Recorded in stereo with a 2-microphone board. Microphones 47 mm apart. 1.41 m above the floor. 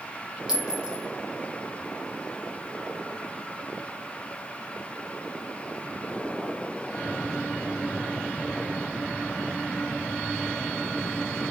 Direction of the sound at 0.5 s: 15° right (ahead or behind).